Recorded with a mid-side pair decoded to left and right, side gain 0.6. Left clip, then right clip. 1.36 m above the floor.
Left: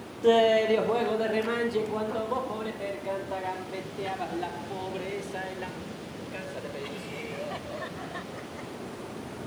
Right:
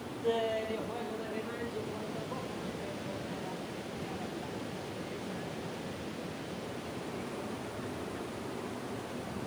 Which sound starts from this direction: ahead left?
Laughter, at 0.2 s.